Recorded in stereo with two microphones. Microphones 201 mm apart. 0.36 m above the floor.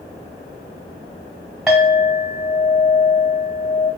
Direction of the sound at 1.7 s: 5° right (ahead or behind).